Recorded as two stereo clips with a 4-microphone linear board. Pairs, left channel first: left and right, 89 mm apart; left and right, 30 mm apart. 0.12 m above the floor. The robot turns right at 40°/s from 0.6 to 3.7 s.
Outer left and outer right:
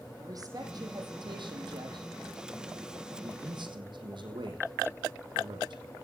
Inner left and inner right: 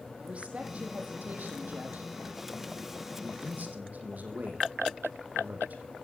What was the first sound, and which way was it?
A woman speaking, 130° right.